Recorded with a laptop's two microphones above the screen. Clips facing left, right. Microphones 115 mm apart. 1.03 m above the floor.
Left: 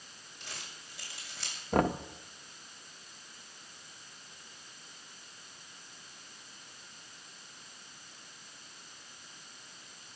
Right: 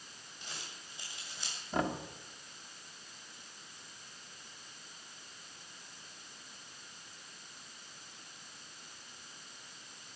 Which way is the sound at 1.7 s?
55° left (ahead or behind).